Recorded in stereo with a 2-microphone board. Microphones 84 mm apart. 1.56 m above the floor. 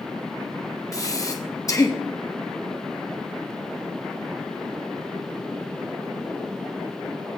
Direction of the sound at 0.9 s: 45° left (ahead or behind).